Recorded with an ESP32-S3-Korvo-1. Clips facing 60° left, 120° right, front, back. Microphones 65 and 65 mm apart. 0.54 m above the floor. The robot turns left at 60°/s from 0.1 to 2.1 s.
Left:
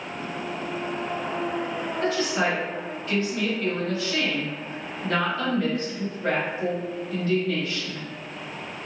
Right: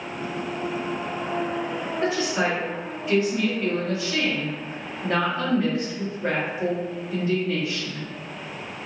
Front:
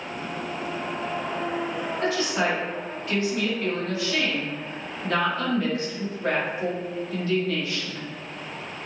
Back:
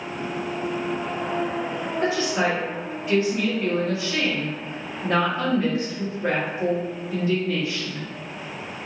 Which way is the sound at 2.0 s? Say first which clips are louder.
Even, back 2 dB; 160° right.